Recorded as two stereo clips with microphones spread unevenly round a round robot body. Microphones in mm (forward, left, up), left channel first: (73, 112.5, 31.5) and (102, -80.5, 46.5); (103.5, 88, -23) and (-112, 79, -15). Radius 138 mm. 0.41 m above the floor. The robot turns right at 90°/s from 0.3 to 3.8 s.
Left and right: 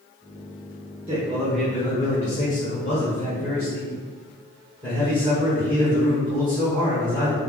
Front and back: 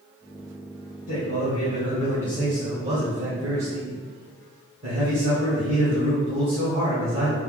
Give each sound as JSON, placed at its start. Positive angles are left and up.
{"t": 1.1, "sound": "a man speaking", "azimuth_deg": -30, "distance_m": 1.3}